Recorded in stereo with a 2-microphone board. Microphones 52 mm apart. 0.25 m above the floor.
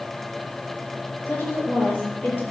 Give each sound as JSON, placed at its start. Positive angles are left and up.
{"t": 1.3, "sound": "a woman speaking", "side_deg": 45, "distance_m": 7.0}